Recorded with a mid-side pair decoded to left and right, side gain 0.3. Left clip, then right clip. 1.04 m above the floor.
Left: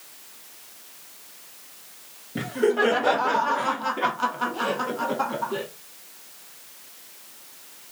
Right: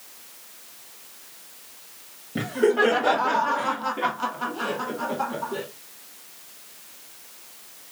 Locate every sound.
2.4 s laughter: 15° right, 1.6 m; by 5.7 s 65° left, 2 m